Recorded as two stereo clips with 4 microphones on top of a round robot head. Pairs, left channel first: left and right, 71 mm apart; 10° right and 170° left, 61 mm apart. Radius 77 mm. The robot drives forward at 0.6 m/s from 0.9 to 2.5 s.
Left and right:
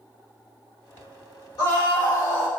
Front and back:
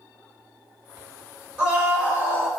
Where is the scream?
105° left, 2.5 m; by 2.5 s 115° left, 2.5 m.